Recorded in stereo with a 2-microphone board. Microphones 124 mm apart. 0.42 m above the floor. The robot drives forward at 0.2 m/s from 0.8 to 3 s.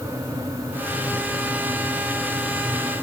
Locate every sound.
Only background noise.